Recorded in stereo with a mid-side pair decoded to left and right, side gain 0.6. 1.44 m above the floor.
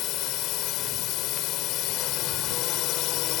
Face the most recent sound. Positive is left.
turn(degrees=65)